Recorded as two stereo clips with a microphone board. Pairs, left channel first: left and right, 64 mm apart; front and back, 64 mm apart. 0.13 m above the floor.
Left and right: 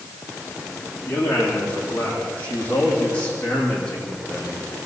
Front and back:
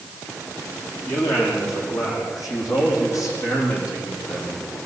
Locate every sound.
1.1 s a man speaking: 30° left, 9 m; by 4.8 s 15° left, 6.5 m